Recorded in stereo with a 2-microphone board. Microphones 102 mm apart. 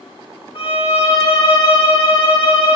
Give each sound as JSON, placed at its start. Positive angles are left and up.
{"t": 0.6, "sound": "a violin", "side_deg": 60, "distance_m": 0.7}